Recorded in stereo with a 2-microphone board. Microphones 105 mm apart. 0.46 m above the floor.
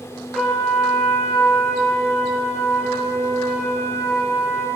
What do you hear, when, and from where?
0.3 s a trumpet: centre (ahead or behind), 5.5 m